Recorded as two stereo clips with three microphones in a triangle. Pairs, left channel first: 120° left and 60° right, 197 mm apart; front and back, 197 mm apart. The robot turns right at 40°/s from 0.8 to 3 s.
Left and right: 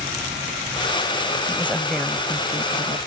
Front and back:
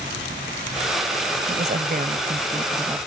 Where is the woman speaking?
165° right; by 3.0 s 105° right.